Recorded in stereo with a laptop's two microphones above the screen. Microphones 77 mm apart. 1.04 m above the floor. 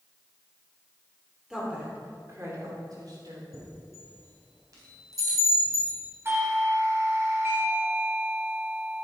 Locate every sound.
1.5 s a woman speaking: 10° right (ahead or behind), 2.5 m; by 3.4 s 65° right (ahead or behind), 3 m
3.5 s a chime: 50° right (ahead or behind), 4 m
6.2 s a doorbell: 30° right (ahead or behind), 2 m